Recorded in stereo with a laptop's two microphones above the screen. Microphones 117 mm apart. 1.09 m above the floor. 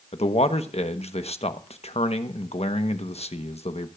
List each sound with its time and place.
0.1 s a man speaking: 60° left (ahead or behind), 1.1 m